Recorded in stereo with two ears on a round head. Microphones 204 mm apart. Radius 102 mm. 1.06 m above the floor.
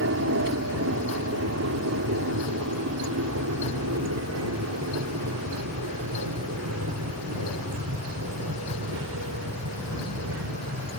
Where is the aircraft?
60° right (ahead or behind).